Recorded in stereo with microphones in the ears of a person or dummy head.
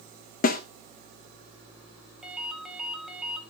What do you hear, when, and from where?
0.4 s a snare drum: 50° left (ahead or behind), 1.1 m
2.2 s a ringtone: centre (ahead or behind), 1.7 m